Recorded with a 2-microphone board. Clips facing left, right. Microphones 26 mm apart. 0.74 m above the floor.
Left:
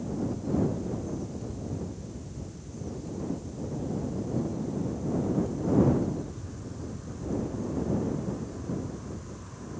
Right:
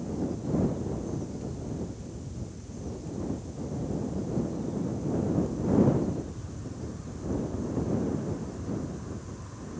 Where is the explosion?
No explosion in this recording.